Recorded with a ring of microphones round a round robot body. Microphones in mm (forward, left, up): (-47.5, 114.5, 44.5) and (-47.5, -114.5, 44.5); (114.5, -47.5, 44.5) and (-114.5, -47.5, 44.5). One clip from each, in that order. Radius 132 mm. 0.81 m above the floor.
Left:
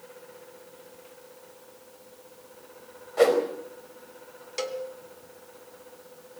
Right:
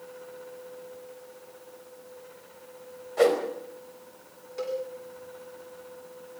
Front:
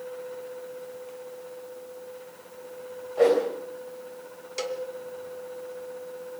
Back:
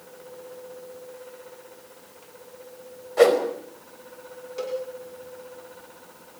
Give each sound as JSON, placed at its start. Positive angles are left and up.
{"t": 3.2, "sound": "a whoosh", "azimuth_deg": 180, "distance_m": 4.5}
{"t": 4.6, "sound": "a cowbell", "azimuth_deg": 50, "distance_m": 1.6}